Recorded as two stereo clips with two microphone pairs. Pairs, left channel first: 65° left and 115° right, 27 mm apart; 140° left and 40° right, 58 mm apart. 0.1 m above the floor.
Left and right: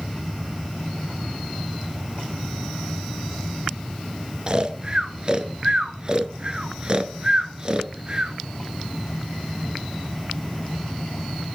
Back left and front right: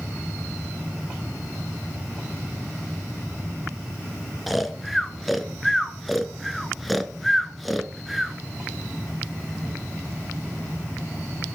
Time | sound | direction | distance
4.5 | snoring | 130° right | 0.5 m